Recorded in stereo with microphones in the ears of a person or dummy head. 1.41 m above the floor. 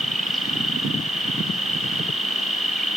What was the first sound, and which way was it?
An insect, centre (ahead or behind).